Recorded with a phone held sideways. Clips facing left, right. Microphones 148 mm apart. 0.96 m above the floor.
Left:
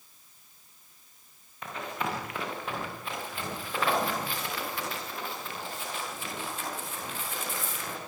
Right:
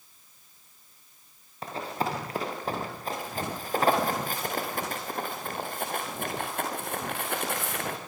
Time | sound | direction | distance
1.6 | running footsteps | 35° right (ahead or behind) | 7.5 m